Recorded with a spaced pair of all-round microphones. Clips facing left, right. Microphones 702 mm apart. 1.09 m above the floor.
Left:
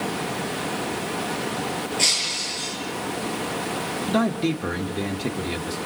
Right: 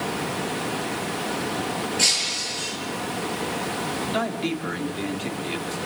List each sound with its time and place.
2.0 s breaking glass: 45° right (ahead or behind), 8 m
4.1 s a man speaking: 75° left (ahead or behind), 1.8 m